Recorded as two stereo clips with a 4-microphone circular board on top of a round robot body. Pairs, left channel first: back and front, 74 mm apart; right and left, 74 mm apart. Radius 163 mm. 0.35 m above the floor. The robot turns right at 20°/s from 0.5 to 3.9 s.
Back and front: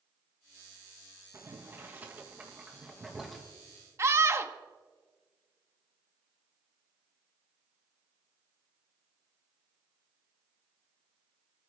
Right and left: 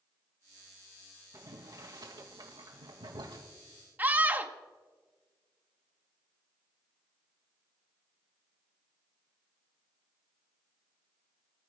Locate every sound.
1.3 s boiling: 50° left, 3 m; by 3.4 s 90° left, 3 m
4.0 s a scream: 35° left, 1.9 m